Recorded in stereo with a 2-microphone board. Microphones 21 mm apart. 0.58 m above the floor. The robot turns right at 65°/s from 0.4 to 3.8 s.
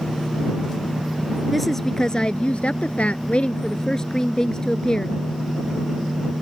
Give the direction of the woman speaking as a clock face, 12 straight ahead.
12 o'clock.